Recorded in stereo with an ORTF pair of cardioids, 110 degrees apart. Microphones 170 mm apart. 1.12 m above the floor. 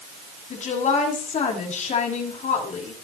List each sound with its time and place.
0.5 s a woman speaking: 45° left, 8 m